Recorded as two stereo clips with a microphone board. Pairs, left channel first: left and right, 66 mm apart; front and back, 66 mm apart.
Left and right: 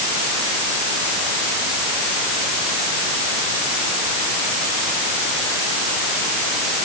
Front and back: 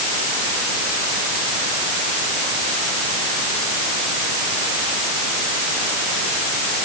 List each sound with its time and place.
Only background noise.